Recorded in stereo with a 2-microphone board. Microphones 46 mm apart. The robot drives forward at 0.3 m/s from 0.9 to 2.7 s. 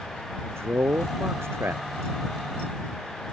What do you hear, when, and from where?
0.4 s a man speaking: 60° right (ahead or behind)